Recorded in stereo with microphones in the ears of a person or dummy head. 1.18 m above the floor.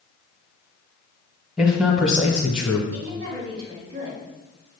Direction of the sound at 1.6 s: 5° right (ahead or behind).